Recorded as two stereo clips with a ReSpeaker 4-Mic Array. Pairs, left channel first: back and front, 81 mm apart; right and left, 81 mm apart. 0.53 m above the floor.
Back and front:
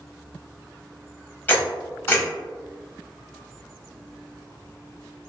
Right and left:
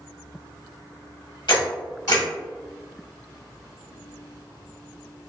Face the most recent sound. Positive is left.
turn(degrees=-115)